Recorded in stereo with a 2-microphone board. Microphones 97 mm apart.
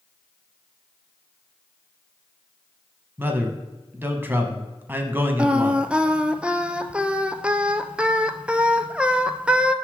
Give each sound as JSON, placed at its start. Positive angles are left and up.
{"t": 3.2, "sound": "a man speaking", "side_deg": -20, "distance_m": 1.1}
{"t": 5.4, "sound": "singing", "side_deg": -15, "distance_m": 0.5}